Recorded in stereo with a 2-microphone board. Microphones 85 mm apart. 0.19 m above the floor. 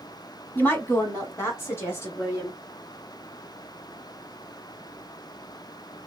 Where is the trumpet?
I don't hear a trumpet.